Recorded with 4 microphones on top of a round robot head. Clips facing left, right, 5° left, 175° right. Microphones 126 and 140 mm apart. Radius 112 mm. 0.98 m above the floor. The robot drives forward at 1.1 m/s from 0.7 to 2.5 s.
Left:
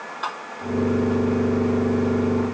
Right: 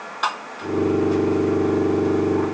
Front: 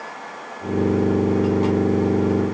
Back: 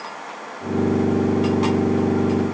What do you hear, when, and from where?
Only background noise.